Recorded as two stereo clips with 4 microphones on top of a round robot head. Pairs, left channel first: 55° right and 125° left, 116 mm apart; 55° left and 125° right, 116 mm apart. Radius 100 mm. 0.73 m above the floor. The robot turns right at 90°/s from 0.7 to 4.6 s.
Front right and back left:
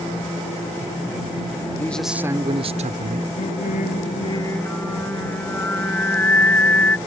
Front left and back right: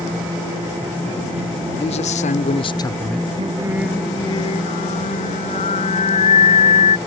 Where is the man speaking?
15° left; by 3.3 s 150° left.